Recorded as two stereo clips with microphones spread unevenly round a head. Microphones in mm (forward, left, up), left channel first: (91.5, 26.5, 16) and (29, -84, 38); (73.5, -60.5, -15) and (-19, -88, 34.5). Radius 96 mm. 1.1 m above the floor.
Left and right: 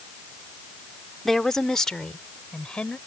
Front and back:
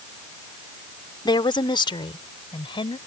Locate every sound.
1.2 s a woman speaking: 30° right; by 3.0 s 25° right